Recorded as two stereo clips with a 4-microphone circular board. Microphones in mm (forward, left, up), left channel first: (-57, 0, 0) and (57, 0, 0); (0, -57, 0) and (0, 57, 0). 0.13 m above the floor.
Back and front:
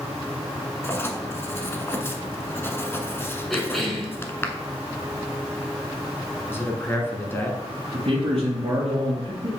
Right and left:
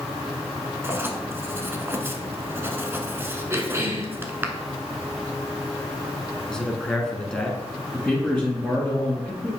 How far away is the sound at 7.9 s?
About 1.7 m.